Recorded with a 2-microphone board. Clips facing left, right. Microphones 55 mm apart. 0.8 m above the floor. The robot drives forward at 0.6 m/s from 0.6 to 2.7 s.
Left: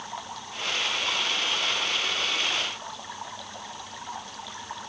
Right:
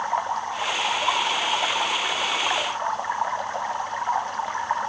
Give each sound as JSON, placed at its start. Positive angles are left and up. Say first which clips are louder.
{"t": 0.0, "sound": "running water", "louder": "right 13 dB", "side_deg": -40}